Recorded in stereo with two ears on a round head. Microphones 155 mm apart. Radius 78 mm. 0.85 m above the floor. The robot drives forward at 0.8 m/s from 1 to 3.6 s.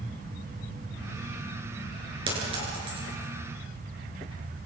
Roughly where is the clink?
Right.